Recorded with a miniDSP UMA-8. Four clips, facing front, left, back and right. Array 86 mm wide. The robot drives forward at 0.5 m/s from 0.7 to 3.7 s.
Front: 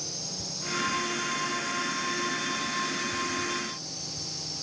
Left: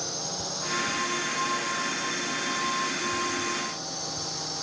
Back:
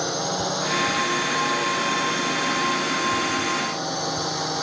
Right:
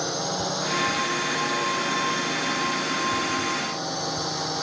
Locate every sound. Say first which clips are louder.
0.0 s a drone: right 8 dB, back 17 dB; 155° right